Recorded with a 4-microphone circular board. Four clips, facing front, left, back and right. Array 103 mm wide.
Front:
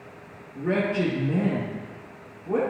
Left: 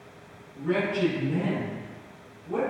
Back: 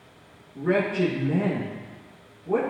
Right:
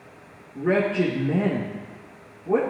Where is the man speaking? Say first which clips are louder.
Right 5 dB, back 1 dB; 85° right, 2.5 m.